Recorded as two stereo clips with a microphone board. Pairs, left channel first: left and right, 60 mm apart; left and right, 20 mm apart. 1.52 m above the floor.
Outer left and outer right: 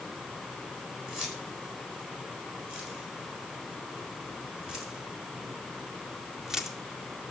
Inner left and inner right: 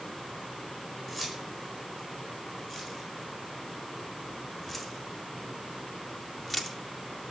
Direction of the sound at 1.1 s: 10° right (ahead or behind).